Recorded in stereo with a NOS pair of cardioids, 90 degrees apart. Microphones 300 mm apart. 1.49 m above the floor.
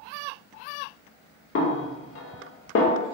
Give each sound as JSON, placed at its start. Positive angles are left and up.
{"t": 1.6, "sound": "a snare drum", "azimuth_deg": 45, "distance_m": 0.6}